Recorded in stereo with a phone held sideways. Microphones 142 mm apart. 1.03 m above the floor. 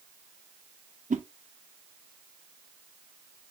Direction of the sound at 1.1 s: 60° right (ahead or behind).